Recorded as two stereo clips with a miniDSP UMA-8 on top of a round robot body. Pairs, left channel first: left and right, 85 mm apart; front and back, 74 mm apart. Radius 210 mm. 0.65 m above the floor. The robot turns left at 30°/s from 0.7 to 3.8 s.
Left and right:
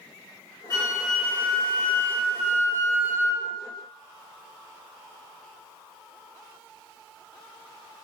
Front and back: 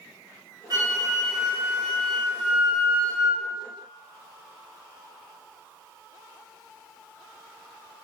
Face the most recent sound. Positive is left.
turn(degrees=50)